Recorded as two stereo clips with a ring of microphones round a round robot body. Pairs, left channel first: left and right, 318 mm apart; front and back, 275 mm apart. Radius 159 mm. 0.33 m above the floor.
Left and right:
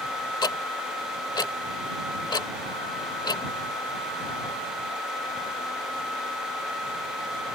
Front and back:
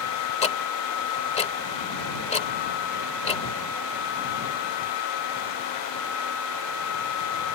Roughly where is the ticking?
Ahead left.